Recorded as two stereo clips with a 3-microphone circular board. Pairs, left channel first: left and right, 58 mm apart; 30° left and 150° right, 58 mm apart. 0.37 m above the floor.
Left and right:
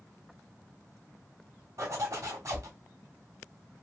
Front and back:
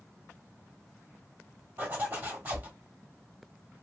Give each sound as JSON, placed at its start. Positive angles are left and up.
{"t": 1.8, "sound": "a zipper", "azimuth_deg": -100, "distance_m": 1.9}